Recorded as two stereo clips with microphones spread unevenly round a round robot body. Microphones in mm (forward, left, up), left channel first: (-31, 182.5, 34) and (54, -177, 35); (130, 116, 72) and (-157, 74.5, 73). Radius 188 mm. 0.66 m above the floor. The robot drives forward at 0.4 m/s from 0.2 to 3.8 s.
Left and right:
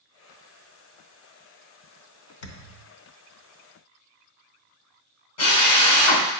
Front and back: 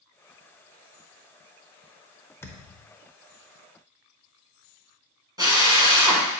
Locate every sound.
2.4 s a thud: 90° left, 1.0 m; by 2.9 s 100° left, 1.0 m
5.4 s a drill: 110° left, 2.5 m